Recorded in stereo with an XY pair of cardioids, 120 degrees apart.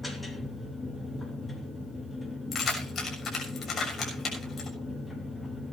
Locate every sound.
0.0 s a machine running: 15° left, 3 m
2.5 s keys jangling: 40° left, 6.5 m